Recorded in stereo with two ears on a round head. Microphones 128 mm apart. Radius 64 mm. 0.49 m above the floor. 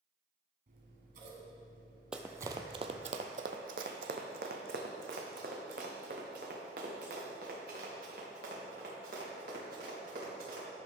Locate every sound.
0.7 s scissors: 60° right (ahead or behind), 2.0 m
2.1 s running footsteps: 5° right (ahead or behind), 0.7 m; by 10.7 s 70° right (ahead or behind), 5.5 m